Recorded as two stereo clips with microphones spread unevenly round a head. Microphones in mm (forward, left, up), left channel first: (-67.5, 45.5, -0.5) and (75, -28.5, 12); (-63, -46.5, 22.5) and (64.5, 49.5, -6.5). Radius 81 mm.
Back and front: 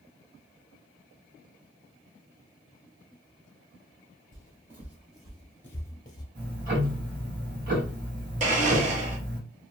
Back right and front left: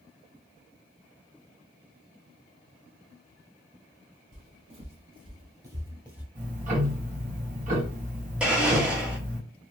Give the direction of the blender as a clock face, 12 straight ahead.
2 o'clock.